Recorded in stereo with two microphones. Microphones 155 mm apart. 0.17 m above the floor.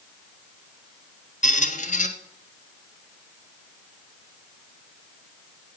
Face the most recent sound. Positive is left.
turn(degrees=55)  # may be behind; listen again after turning